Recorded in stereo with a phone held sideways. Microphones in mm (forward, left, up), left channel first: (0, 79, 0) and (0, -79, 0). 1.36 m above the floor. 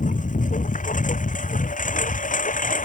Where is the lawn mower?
55° left (ahead or behind).